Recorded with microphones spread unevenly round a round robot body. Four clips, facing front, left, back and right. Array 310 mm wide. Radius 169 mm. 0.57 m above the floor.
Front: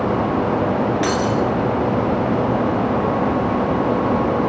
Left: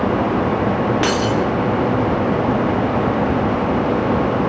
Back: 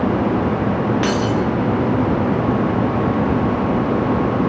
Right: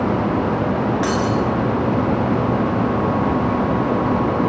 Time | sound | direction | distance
1.0 | breaking glass | 85° left | 4.5 m